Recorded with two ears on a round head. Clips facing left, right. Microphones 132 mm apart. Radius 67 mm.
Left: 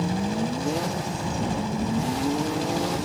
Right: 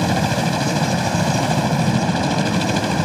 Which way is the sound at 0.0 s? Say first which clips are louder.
Right 7 dB; 70° right (ahead or behind).